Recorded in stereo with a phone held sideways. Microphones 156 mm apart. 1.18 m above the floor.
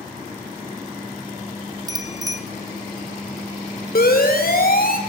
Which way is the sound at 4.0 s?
75° left (ahead or behind).